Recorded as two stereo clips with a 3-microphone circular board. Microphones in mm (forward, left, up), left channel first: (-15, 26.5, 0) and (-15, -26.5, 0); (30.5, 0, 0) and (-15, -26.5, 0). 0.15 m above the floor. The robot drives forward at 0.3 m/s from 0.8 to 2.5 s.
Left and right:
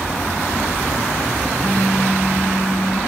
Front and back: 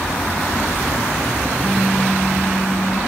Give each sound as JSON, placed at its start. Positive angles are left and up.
{"t": 1.6, "sound": "a phone buzzing", "azimuth_deg": 90, "distance_m": 2.5}